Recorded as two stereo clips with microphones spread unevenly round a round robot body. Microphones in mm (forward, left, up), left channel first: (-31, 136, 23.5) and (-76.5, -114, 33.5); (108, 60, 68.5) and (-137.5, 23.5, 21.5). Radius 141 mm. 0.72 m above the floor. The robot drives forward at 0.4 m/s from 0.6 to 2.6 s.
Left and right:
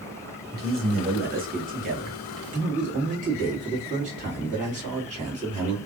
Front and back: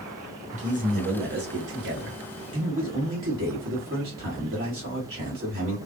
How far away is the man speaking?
About 1.0 m.